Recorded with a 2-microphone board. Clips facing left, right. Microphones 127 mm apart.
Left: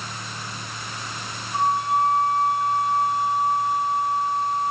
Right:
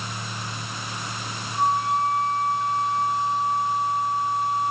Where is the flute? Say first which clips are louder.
Left 1 dB; 65° left (ahead or behind), 9.5 m.